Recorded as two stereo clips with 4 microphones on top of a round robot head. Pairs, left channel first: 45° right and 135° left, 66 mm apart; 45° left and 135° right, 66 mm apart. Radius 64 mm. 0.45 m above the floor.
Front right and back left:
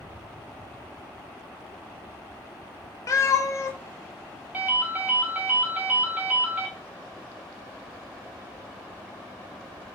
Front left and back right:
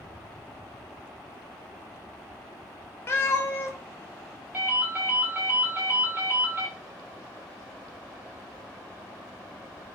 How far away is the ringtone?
About 0.9 m.